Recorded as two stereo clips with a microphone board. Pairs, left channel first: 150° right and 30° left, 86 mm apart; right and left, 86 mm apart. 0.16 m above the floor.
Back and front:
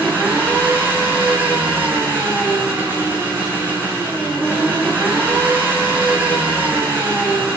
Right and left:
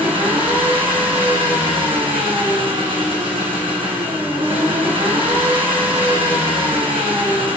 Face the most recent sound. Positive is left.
turn(degrees=95)